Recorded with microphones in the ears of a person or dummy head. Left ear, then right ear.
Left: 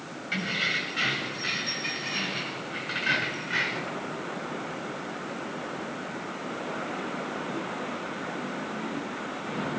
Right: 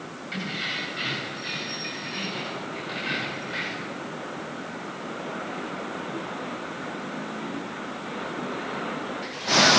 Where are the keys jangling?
35° left (ahead or behind), 7 m; by 4.0 s 40° left (ahead or behind), 4 m.